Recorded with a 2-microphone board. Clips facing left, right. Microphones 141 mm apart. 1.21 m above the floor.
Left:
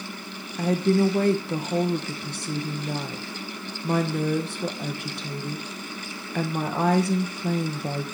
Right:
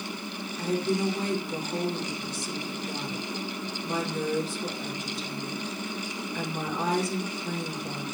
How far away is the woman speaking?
About 1.2 m.